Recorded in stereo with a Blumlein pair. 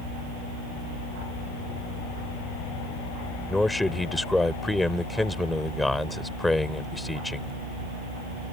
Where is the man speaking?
5° left.